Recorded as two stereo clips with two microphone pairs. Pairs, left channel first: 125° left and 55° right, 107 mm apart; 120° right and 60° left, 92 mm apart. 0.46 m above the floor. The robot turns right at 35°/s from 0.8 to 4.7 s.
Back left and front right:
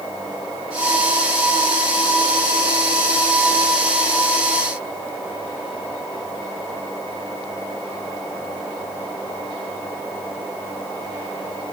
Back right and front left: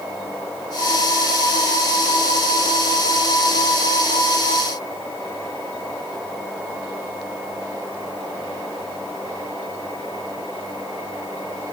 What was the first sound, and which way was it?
Only background noise.